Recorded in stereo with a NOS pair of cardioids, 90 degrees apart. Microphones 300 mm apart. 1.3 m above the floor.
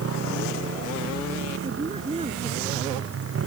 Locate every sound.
0.0 s a motorcycle: 50° right
1.6 s a woman speaking: 20° right